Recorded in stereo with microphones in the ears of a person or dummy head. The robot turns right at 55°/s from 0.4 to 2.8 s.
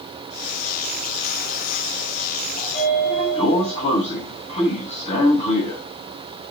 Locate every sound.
2.6 s a sliding door: 45° left (ahead or behind), 7.5 m; by 5.8 s 35° left (ahead or behind), 7.5 m